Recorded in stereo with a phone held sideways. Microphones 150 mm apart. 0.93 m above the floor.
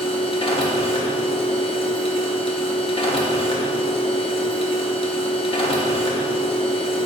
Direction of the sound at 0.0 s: 40° left (ahead or behind).